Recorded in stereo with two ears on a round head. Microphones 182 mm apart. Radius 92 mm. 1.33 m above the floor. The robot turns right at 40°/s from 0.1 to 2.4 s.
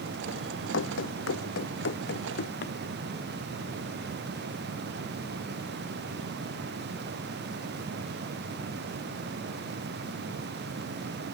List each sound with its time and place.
0.7 s running footsteps: 65° left (ahead or behind); by 2.8 s 55° left (ahead or behind)